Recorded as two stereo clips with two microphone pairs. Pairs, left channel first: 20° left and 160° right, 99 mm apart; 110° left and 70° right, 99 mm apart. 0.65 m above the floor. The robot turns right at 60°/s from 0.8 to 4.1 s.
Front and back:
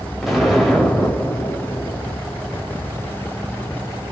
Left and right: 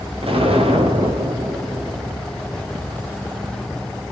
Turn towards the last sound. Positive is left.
turn(degrees=130)